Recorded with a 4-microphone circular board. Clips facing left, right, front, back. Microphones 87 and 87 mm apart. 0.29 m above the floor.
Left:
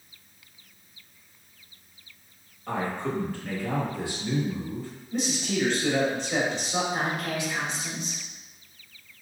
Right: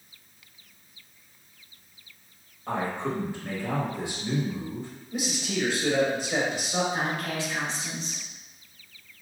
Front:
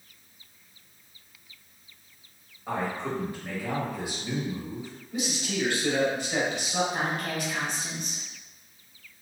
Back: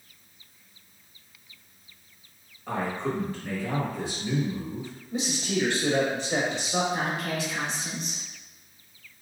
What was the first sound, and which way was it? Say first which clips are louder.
A man speaking: even, back 1 dB; 60° right.